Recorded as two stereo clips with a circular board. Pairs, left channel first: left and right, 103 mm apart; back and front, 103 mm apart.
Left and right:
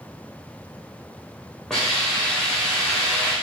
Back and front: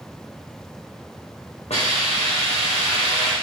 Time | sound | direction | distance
1.7 | a hiss | 175° left | 4 m